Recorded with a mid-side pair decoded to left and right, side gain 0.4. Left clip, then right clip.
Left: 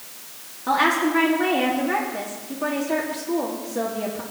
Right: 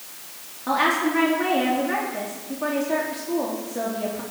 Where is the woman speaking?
5° left, 3.5 m.